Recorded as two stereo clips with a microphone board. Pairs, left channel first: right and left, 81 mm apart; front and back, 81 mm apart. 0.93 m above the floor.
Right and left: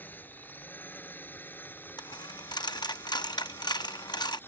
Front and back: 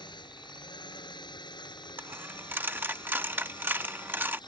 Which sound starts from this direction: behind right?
A dropped coin, at 2.0 s.